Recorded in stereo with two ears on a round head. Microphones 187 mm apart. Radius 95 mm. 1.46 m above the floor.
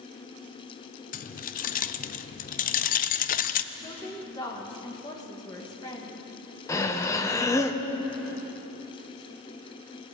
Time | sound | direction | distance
1.1 | keys jangling | 40° left (ahead or behind) | 0.5 m
3.7 | a woman speaking | 20° left (ahead or behind) | 1.7 m
6.7 | breathing | 15° left (ahead or behind) | 1.0 m